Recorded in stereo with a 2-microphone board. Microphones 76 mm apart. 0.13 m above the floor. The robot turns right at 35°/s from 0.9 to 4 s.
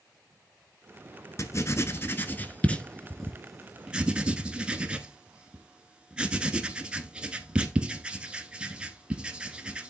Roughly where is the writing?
Left.